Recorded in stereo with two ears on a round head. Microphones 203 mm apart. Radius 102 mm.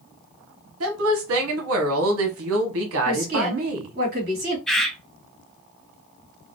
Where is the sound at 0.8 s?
65° right (ahead or behind), 1.2 m.